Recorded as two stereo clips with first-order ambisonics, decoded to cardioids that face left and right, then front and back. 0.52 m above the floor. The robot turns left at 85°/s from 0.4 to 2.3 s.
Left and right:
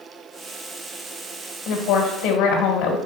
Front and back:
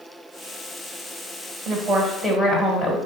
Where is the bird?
I don't hear a bird.